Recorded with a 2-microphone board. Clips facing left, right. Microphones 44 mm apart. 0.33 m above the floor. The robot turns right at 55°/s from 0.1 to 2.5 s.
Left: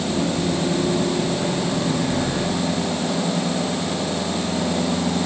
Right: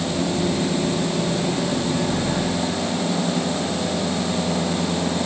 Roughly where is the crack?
I don't hear a crack.